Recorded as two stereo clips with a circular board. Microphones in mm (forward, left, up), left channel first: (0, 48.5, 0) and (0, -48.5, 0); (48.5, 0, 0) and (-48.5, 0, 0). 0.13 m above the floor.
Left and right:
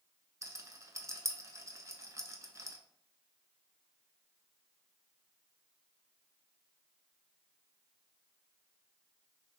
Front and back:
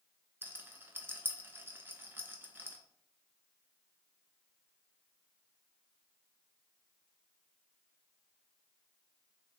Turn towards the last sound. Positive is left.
turn(degrees=-125)